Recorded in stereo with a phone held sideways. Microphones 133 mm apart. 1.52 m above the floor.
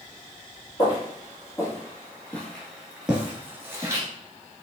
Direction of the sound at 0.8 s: 30° left (ahead or behind).